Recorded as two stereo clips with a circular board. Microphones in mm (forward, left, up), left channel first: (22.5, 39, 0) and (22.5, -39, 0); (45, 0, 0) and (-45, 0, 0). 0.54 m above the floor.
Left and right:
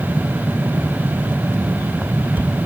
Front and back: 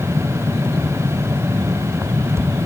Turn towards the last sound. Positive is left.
No sound to turn to.